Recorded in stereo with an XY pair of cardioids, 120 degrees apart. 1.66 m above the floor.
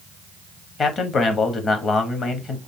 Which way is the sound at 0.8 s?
40° left.